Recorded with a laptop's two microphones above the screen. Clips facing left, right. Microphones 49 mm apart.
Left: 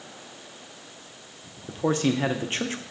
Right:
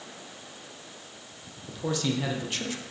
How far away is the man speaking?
About 0.6 m.